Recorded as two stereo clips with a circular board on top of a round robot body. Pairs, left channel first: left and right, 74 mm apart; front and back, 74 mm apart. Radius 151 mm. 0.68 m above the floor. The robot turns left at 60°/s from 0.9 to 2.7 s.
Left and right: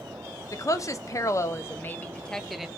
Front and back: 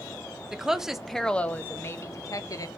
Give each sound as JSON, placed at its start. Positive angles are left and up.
{"t": 0.5, "sound": "a woman speaking", "azimuth_deg": 100, "distance_m": 1.0}